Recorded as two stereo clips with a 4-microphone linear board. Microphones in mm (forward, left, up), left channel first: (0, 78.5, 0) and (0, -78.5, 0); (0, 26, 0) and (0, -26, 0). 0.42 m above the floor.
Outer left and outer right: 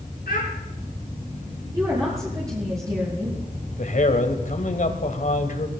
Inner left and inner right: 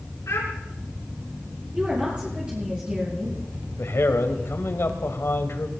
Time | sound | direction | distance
0.3 | a child speaking | 75° left (ahead or behind) | 3.5 m
1.7 | a woman speaking | 20° right (ahead or behind) | 7.5 m
3.8 | a man speaking | 60° left (ahead or behind) | 1.9 m